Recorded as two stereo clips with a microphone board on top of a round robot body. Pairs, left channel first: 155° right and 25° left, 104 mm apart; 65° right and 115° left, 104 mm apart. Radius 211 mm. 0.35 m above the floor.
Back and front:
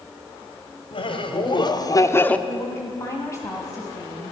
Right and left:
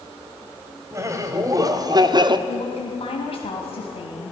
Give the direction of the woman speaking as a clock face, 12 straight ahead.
3 o'clock.